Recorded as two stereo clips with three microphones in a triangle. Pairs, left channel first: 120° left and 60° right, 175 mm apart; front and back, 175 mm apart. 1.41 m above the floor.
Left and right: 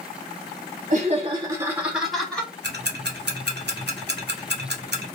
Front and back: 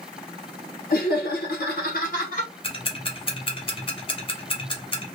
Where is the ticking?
60° right, 0.7 m.